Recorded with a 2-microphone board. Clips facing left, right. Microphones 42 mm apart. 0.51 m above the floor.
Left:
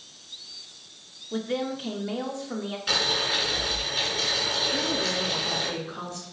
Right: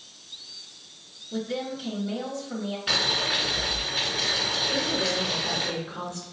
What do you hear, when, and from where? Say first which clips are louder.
1.3 s a woman speaking: left 2 dB; 30° left (ahead or behind), 0.9 m
2.9 s boiling: even; 10° right (ahead or behind), 2 m
4.7 s a woman speaking: right 1 dB; 30° right (ahead or behind), 1.7 m